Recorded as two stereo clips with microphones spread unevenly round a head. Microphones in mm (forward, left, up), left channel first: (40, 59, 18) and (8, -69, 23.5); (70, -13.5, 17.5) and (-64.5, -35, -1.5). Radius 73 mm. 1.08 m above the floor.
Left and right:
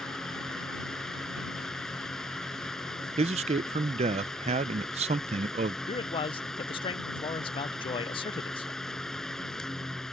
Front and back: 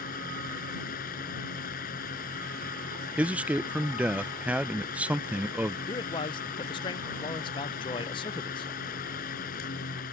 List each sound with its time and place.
0.0 s a fan: 10° right
3.2 s a man speaking: 100° right
5.9 s a man speaking: 60° left